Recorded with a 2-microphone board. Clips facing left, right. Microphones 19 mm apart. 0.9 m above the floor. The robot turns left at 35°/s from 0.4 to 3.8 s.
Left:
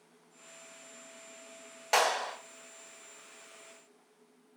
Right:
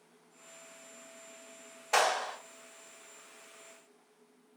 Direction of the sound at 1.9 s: 70° left (ahead or behind).